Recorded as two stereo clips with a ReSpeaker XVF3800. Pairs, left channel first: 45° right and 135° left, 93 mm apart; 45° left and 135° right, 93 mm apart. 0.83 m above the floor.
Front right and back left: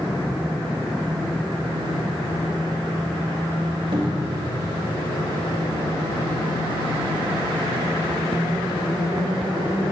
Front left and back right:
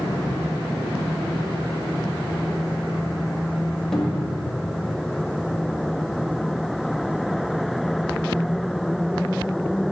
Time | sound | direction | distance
3.9 | a cupboard door | 130° left | 1.6 m